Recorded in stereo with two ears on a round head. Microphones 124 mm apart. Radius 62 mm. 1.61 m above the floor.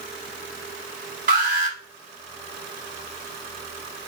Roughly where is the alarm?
Right.